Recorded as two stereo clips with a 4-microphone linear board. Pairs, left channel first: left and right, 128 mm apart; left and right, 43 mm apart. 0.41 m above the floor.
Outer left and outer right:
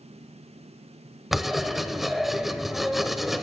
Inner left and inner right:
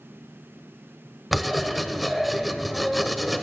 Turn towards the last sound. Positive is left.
turn(degrees=0)  # may be behind; listen again after turning